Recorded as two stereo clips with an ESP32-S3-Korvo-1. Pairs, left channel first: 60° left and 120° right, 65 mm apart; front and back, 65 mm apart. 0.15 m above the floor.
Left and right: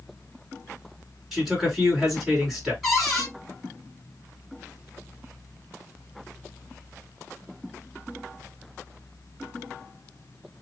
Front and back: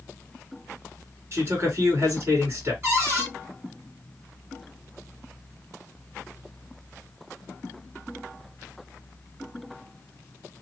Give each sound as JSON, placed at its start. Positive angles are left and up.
{"t": 1.3, "sound": "a man speaking", "azimuth_deg": 155, "distance_m": 1.9}
{"t": 2.8, "sound": "a cupboard door", "azimuth_deg": 155, "distance_m": 2.0}